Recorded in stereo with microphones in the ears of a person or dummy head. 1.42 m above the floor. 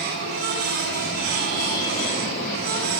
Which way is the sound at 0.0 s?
60° right (ahead or behind).